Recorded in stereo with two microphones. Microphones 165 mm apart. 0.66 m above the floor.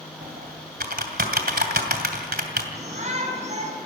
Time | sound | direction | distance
0.2 | typing on a keyboard | 70° right (ahead or behind) | 2.5 m
2.8 | a shout | 45° right (ahead or behind) | 5.5 m